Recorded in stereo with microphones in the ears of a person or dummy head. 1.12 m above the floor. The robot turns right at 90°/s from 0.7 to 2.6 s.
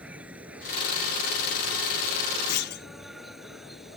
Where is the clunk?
60° left (ahead or behind); by 2.9 s 50° left (ahead or behind).